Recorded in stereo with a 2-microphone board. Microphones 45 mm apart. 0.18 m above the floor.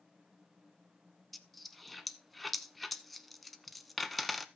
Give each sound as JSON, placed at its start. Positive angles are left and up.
{"t": 1.3, "sound": "a dropped coin", "side_deg": 5, "distance_m": 0.8}